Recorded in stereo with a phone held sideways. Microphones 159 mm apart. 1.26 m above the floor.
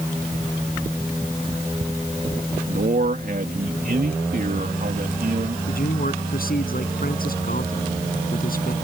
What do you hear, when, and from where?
2.7 s a man speaking: 70° right (ahead or behind)
5.7 s a man speaking: 65° left (ahead or behind)